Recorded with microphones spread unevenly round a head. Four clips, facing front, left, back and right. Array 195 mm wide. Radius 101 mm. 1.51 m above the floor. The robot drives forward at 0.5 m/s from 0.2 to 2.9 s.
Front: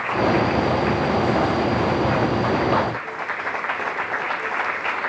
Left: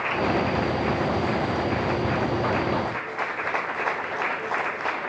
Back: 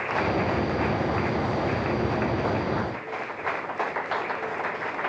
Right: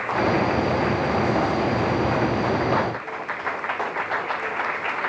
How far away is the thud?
I don't hear a thud.